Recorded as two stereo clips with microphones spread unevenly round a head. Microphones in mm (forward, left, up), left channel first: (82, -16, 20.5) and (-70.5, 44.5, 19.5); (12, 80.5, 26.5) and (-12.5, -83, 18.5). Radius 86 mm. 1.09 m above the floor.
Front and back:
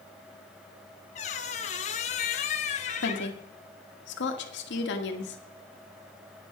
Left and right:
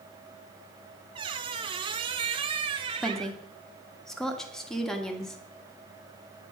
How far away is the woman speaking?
About 1.5 m.